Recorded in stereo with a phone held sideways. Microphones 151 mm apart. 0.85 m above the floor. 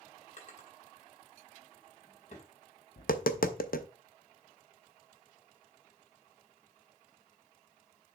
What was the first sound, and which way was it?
A drawer, 50° left (ahead or behind).